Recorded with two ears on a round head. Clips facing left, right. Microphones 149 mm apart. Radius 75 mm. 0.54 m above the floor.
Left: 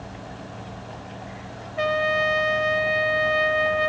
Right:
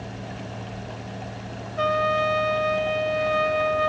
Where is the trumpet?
20° left (ahead or behind), 1.0 m.